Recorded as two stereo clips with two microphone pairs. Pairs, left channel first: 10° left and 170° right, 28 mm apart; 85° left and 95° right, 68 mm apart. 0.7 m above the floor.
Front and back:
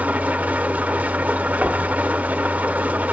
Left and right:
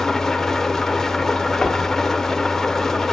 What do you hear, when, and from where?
0.0 s an engine running: 170° left, 0.8 m
1.6 s knocking: 160° left, 1.4 m